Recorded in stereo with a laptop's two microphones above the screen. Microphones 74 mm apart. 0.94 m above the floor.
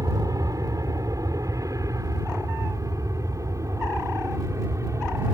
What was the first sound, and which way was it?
An aircraft, 50° right (ahead or behind).